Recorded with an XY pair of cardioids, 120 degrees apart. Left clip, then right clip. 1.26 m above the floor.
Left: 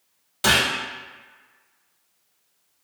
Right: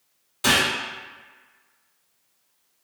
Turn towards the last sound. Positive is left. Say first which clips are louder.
# left 1 dB
turn(degrees=30)